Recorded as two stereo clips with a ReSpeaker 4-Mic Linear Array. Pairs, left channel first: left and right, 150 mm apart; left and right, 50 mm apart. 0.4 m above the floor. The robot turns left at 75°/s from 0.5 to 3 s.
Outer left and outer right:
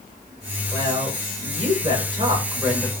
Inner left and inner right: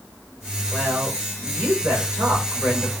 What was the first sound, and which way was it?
A woman speaking, 25° right.